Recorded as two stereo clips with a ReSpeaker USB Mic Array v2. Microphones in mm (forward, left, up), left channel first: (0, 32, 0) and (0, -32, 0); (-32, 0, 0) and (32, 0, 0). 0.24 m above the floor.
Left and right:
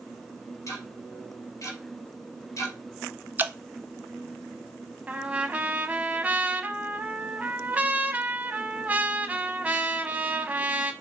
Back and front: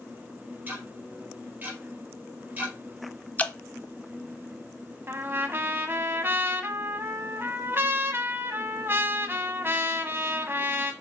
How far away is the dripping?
About 0.6 m.